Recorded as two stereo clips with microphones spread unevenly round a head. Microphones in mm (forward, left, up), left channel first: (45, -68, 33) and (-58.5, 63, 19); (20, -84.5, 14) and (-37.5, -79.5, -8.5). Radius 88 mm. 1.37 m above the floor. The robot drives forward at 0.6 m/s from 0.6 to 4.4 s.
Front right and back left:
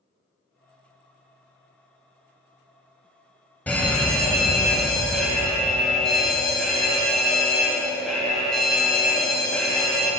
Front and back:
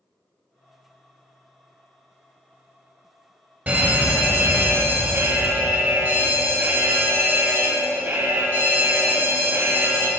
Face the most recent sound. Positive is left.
turn(degrees=-140)